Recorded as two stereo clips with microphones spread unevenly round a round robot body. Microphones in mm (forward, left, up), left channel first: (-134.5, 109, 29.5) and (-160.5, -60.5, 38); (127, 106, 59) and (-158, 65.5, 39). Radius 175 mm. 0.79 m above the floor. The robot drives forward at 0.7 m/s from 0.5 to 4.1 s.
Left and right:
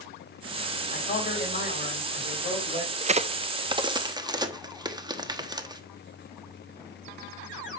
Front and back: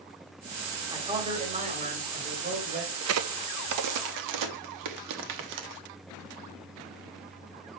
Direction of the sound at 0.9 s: 115° left.